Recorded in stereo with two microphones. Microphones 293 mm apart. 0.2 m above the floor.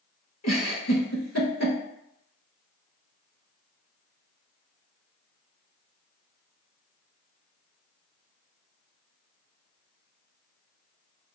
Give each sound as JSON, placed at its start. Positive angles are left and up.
{"t": 0.4, "sound": "a giggle", "side_deg": 65, "distance_m": 0.7}